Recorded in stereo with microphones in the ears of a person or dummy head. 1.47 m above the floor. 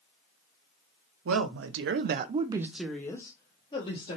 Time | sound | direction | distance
1.2 | a woman speaking | 80° right | 0.9 m